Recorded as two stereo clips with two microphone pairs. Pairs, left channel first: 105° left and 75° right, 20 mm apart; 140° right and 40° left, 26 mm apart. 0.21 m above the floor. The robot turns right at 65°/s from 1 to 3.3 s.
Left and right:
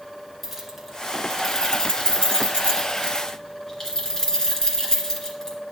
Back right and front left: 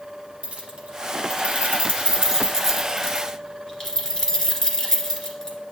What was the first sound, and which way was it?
Keys jangling, 15° left.